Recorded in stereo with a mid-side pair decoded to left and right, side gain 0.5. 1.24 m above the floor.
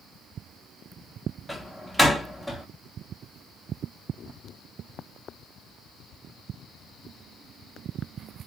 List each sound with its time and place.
1.5 s a door slam: 5° left, 0.8 m